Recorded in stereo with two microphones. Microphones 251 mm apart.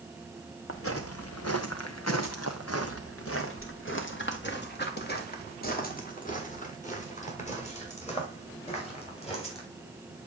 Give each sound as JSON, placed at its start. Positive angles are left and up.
{"t": 0.7, "sound": "footsteps", "side_deg": 55, "distance_m": 1.7}